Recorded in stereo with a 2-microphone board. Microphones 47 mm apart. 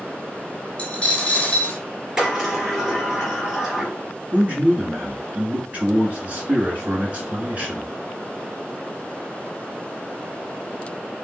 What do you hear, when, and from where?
0.8 s a dropped coin: 20° left (ahead or behind), 0.9 m
2.2 s a sliding door: 10° right (ahead or behind), 2.0 m
4.3 s a man speaking: 30° right (ahead or behind), 1.9 m